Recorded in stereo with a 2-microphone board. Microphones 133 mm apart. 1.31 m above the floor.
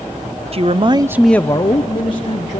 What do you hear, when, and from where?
0.5 s a man speaking: 50° right (ahead or behind), 0.9 m; by 2.6 s 45° left (ahead or behind), 1.8 m